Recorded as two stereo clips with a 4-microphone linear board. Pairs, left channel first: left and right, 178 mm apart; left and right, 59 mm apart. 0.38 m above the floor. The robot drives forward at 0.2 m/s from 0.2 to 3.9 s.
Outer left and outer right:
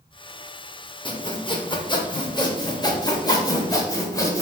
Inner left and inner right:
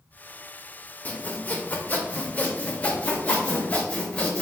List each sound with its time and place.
1.1 s sawing: 30° left (ahead or behind), 0.5 m; by 4.4 s 20° left (ahead or behind), 0.8 m